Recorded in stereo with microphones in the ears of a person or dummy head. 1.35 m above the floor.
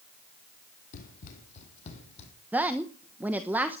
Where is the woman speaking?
10° right (ahead or behind), 1.0 m.